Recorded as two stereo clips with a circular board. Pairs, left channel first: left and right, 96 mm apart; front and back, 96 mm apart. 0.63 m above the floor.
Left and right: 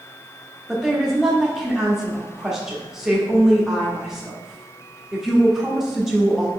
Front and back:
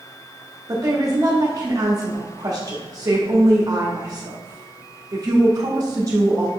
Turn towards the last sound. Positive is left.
turn(degrees=-175)